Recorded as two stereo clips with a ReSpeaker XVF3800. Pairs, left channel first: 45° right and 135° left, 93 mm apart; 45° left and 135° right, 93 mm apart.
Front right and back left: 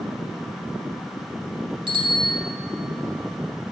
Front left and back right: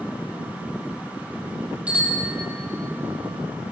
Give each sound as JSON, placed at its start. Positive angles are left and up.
{"t": 1.9, "sound": "a bicycle bell", "azimuth_deg": 150, "distance_m": 4.5}